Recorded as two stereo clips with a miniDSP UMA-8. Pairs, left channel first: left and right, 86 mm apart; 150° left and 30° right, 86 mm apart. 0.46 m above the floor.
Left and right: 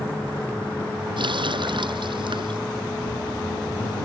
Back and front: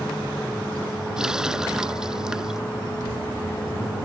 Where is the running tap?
115° right.